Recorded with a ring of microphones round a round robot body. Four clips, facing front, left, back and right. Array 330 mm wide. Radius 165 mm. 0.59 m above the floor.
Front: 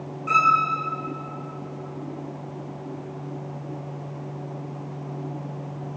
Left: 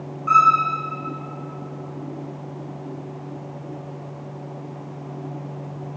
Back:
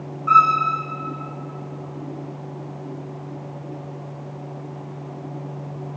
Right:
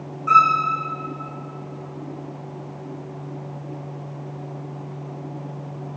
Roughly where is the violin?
Ahead right.